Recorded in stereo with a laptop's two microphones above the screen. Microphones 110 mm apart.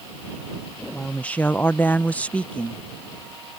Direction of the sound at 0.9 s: 10° left (ahead or behind).